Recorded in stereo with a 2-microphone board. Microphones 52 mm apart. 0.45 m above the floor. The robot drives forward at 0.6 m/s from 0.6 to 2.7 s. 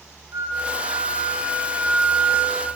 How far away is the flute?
About 1.5 m.